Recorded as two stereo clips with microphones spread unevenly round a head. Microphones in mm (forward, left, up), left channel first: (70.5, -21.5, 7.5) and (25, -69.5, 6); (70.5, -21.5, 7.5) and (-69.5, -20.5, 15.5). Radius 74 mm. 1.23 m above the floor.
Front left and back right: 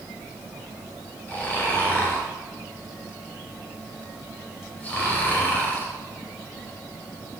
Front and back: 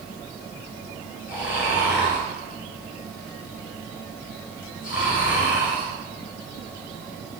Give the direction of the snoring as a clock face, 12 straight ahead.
1 o'clock.